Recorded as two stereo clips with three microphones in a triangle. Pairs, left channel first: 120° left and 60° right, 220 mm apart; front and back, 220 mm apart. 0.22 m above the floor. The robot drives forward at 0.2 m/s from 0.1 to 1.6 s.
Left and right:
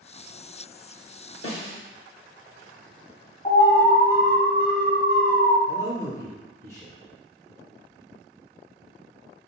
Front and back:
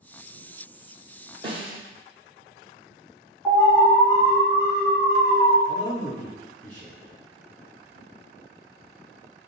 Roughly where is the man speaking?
Left.